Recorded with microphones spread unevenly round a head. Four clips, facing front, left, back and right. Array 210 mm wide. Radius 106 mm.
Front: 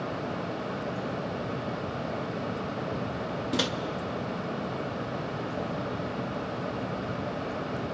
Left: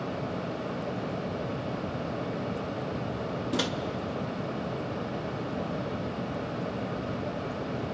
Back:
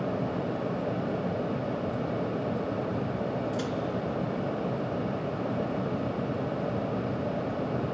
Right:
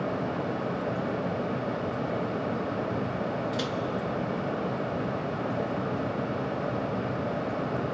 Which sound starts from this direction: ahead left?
A microwave, at 3.5 s.